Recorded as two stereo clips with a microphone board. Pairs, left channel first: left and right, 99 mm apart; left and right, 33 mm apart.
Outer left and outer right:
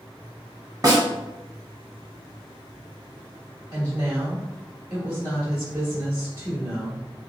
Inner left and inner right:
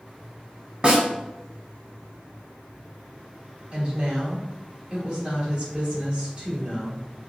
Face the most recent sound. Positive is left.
turn(degrees=-30)  # may be behind; listen again after turning